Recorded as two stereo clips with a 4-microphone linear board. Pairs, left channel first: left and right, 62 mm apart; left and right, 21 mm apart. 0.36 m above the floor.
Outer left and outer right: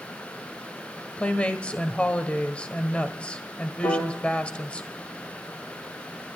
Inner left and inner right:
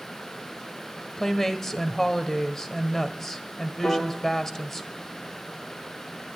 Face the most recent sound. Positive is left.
turn(degrees=85)